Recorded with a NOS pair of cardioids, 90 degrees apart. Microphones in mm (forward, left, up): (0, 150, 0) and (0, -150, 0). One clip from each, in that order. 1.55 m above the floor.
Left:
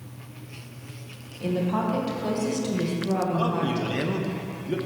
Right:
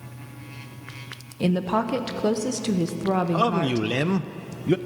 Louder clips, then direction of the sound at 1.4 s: Right 3 dB; 55° right.